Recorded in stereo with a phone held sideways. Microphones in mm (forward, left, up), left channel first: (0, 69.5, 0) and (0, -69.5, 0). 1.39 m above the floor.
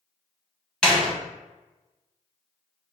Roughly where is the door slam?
Centre.